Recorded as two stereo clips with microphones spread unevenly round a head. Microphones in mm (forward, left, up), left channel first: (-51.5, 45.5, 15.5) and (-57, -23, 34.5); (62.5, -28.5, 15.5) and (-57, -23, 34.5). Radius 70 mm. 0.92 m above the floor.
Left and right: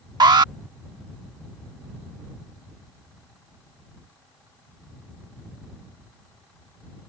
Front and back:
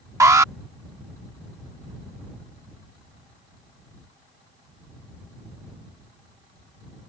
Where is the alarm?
115° right.